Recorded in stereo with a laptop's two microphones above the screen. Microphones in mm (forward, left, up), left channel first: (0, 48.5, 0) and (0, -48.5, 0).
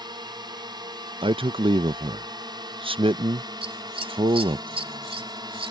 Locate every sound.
0.0 s a drone: 45° right (ahead or behind)
1.2 s a man speaking: 65° right (ahead or behind)
3.6 s scissors: 75° right (ahead or behind)